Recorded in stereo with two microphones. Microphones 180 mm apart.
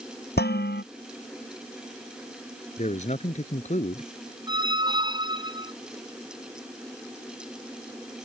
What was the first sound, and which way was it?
Dishes clattering, 65° left (ahead or behind).